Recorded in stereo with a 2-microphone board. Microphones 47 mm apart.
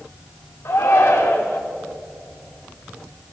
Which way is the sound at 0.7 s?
70° left (ahead or behind).